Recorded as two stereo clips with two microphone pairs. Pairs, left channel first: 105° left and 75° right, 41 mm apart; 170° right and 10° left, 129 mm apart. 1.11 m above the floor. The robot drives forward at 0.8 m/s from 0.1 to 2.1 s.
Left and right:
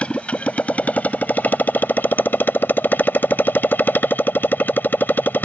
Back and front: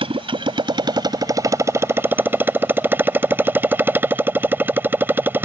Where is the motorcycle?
50° left; by 5.5 s 80° left.